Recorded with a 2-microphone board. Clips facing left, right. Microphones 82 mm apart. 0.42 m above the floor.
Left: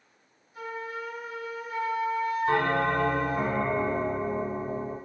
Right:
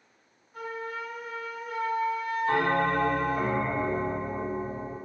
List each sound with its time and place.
0.5 s a flute: 50° right (ahead or behind), 1.0 m
2.5 s a bell: 35° left (ahead or behind), 1.7 m